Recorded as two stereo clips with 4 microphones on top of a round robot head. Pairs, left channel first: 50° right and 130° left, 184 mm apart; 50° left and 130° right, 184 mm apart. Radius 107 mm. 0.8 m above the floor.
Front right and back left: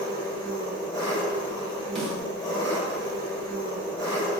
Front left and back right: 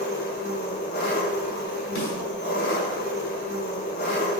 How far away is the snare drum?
About 1.6 m.